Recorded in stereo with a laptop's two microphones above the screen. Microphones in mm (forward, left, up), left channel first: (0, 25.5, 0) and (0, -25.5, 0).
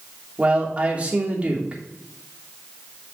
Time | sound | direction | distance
0.4 | a man speaking | 25° right (ahead or behind) | 3 m